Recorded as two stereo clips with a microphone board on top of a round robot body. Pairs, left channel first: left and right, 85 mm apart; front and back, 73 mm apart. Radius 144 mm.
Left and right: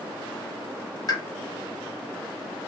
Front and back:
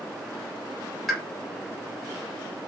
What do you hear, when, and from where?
1.1 s a pop: 95° left, 1.4 m